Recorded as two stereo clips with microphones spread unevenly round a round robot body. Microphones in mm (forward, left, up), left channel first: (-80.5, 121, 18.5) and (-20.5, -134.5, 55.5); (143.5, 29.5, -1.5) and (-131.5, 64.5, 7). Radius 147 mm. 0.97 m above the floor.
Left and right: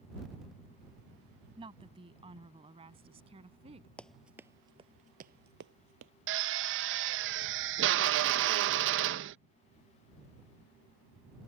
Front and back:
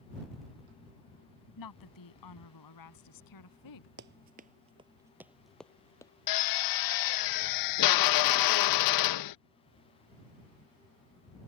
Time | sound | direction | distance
1.6 | a woman speaking | 5° right | ?
4.0 | running footsteps | 165° right | ?
6.3 | a drill | 25° right | ?